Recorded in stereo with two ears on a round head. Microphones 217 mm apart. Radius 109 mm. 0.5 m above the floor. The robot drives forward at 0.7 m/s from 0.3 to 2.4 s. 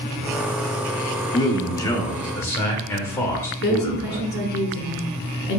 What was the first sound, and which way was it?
A man speaking, 15° left (ahead or behind).